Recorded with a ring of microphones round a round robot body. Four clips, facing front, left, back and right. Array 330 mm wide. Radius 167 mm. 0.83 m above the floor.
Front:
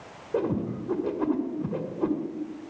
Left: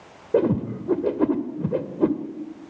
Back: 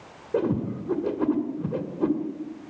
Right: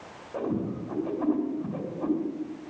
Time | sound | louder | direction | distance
0.3 | a whoosh | left 9 dB, back 2 dB | 95° left | 1.8 m